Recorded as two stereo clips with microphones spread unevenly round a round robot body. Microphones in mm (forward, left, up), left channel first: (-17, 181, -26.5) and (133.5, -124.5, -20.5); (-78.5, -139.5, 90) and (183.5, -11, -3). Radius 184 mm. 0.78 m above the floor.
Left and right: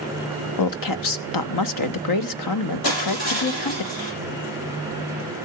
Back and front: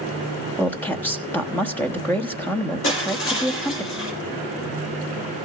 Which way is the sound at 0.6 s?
110° left.